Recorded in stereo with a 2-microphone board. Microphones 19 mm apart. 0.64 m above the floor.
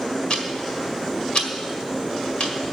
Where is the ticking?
55° left (ahead or behind), 1.7 m.